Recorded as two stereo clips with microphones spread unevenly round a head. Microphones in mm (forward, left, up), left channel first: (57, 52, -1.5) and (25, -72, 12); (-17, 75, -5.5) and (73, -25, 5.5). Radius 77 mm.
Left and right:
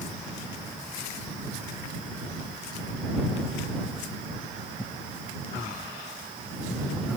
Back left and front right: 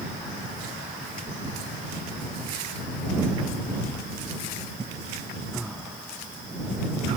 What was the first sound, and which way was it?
Only background noise.